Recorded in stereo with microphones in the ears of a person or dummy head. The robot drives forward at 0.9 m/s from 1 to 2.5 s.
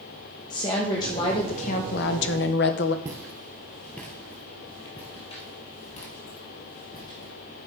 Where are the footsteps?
15° right (ahead or behind), 1.6 m; by 7.3 s 50° left (ahead or behind), 3 m.